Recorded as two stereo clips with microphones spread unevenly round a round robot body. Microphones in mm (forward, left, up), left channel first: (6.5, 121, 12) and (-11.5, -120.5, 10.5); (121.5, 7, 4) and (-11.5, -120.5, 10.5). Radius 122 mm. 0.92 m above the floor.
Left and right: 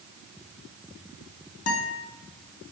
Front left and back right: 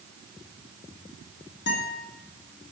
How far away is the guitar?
About 1.9 m.